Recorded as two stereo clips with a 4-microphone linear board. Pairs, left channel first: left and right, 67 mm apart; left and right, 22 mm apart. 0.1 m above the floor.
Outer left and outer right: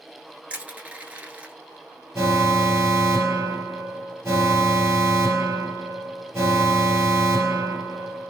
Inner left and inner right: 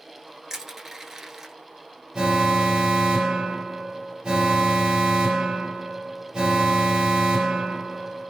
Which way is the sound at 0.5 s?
20° right (ahead or behind).